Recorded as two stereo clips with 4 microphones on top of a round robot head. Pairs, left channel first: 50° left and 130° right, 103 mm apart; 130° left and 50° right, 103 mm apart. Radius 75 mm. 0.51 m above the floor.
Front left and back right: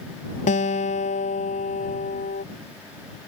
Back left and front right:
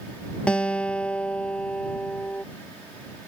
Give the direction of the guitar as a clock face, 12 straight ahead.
10 o'clock.